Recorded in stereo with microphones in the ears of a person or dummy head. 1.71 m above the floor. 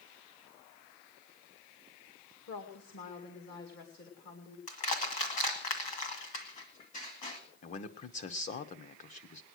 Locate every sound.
2.5 s a woman speaking: 55° left (ahead or behind), 2 m
4.7 s crushing: 35° left (ahead or behind), 2 m
7.6 s a man speaking: 35° left (ahead or behind), 1.0 m